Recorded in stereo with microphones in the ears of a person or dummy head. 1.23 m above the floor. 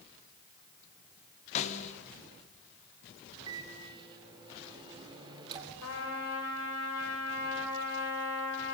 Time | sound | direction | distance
1.6 | a snare drum | 40° left (ahead or behind) | 1.9 m
3.5 | a microwave | 25° right (ahead or behind) | 3 m
5.8 | a trumpet | 80° left | 5.5 m